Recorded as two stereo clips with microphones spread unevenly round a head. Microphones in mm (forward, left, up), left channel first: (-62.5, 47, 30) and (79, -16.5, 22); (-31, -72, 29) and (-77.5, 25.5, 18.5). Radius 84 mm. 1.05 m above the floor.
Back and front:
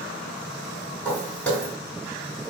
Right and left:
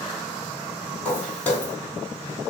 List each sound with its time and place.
1.1 s footsteps: 130° right, 1.3 m